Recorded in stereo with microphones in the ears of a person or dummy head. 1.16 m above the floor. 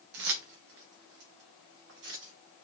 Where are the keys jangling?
60° right (ahead or behind), 0.8 m; by 2.3 s 65° right (ahead or behind), 1.8 m.